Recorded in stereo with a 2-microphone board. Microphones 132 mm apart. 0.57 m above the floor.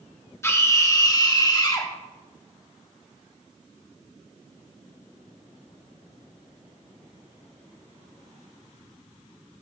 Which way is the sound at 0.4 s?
20° left (ahead or behind).